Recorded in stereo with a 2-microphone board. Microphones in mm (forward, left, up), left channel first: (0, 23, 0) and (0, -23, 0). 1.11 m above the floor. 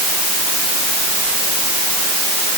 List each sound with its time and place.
Only background noise.